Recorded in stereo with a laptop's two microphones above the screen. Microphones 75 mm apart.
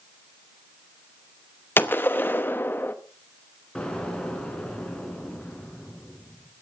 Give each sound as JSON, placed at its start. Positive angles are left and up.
{"t": 1.8, "sound": "a gunshot", "side_deg": 25, "distance_m": 0.8}
{"t": 3.8, "sound": "an explosion", "side_deg": 15, "distance_m": 4.5}